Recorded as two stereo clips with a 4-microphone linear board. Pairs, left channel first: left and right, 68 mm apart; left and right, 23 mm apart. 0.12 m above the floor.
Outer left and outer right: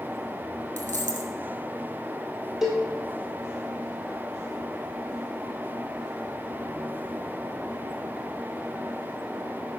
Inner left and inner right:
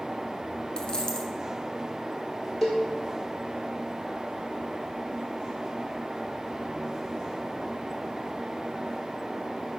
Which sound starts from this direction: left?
A dropped coin, at 0.8 s.